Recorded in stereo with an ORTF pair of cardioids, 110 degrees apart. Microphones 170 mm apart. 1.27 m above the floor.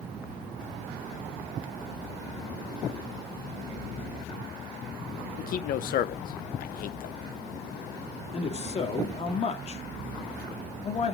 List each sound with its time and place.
5.4 s a man speaking: 65° left, 0.9 m
8.3 s a man speaking: 40° left, 2.5 m